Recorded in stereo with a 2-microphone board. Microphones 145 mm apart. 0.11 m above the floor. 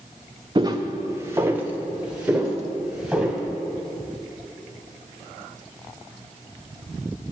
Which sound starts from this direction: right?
Footsteps, at 0.6 s.